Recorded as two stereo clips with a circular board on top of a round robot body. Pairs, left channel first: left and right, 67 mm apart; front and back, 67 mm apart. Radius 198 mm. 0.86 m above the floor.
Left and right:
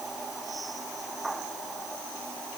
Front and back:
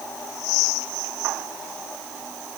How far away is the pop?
I don't hear a pop.